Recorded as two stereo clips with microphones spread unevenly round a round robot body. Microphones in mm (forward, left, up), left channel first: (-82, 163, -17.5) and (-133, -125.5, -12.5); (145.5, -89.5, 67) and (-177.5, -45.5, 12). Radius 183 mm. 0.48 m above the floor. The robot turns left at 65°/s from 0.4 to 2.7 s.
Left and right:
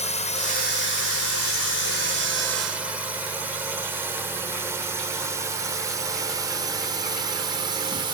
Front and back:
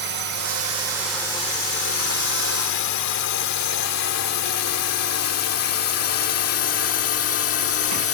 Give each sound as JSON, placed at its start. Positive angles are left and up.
{"t": 0.0, "sound": "a drone", "azimuth_deg": 140}